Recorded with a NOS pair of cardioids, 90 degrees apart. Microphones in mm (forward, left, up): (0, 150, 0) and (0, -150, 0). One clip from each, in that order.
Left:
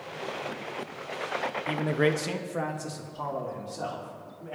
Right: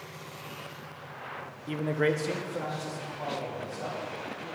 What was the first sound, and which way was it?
A man speaking, 15° left.